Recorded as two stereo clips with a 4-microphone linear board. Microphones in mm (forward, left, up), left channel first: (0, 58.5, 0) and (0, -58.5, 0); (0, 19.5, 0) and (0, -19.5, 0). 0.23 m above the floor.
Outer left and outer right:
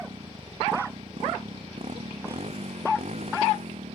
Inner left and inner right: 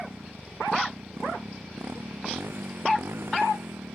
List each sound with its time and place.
0.0 s a motorcycle: 50° right (ahead or behind); by 4.0 s 70° right (ahead or behind)